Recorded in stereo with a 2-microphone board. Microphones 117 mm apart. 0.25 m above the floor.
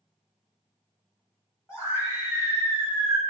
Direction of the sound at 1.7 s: 25° left (ahead or behind).